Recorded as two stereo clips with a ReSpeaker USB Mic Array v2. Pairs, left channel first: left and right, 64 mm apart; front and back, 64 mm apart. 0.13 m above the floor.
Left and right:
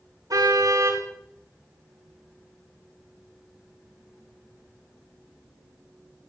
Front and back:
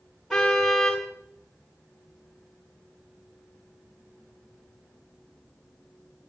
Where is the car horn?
85° right, 10 m.